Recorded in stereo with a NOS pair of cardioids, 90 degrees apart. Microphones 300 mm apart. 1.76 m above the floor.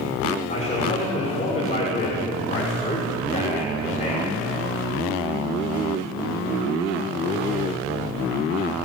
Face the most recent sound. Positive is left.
turn(degrees=20)